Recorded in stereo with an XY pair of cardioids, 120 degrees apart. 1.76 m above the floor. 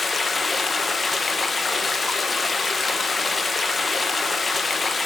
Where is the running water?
25° left, 1.9 m.